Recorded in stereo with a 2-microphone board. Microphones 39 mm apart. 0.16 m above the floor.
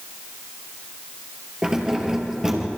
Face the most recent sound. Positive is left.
turn(degrees=-15)  # may be behind; listen again after turning